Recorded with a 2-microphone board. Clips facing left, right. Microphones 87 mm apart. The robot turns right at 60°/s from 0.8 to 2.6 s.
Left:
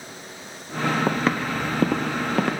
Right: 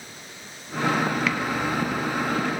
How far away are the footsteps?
About 1.3 m.